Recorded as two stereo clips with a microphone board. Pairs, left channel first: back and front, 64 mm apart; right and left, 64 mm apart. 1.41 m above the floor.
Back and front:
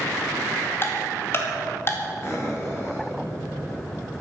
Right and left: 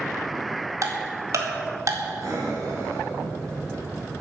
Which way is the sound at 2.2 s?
125° left.